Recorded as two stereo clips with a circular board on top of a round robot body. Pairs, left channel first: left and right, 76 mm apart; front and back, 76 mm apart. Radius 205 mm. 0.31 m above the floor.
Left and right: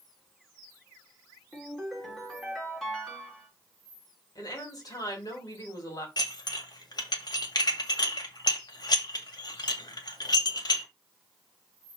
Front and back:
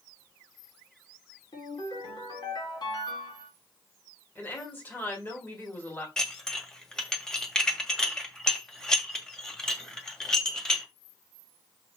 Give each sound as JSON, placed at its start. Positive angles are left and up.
{"t": 1.5, "sound": "a ringtone", "azimuth_deg": 5, "distance_m": 4.5}
{"t": 4.3, "sound": "a woman speaking", "azimuth_deg": 60, "distance_m": 3.5}
{"t": 6.2, "sound": "dishes clattering", "azimuth_deg": 80, "distance_m": 1.8}